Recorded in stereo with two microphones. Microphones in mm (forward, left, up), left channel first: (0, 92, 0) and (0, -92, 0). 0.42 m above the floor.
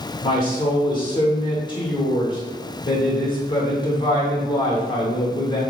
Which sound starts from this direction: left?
A woman speaking, at 0.2 s.